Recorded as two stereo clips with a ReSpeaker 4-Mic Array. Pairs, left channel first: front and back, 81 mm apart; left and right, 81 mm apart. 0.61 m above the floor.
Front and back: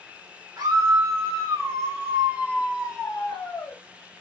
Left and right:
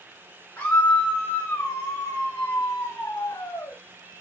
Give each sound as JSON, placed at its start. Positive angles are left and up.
{"t": 0.6, "sound": "a scream", "azimuth_deg": 150, "distance_m": 1.9}